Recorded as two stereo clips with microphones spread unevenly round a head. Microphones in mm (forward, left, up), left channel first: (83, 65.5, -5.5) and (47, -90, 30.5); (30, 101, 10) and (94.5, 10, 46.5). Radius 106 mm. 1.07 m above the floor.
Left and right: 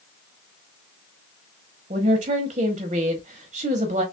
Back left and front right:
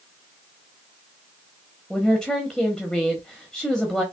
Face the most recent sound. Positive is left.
turn(degrees=-165)